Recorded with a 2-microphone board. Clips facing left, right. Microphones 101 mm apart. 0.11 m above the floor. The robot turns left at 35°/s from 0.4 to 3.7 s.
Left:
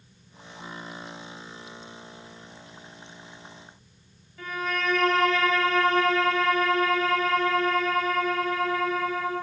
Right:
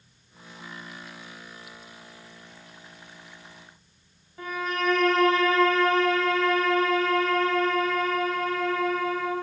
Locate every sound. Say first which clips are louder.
4.4 s a violin: right 1 dB; 25° right (ahead or behind), 2.5 m